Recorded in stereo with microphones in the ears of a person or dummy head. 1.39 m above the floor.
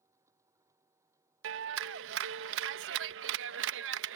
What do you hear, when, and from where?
0.0 s a machine running: 20° right (ahead or behind)
1.4 s a clap: 70° right (ahead or behind)